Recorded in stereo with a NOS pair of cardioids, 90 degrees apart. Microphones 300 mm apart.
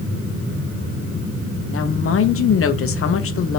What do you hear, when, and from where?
1.7 s a woman speaking: 45° left, 0.9 m